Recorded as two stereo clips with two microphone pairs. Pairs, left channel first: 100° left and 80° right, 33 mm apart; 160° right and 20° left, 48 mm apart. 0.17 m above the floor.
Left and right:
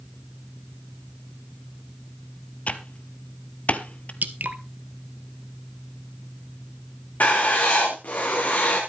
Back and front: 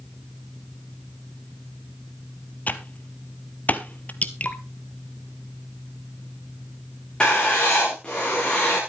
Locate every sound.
2.7 s typing on a keyboard: 145° left, 0.9 m
4.2 s dripping: 100° right, 0.9 m
7.2 s writing: 130° left, 6 m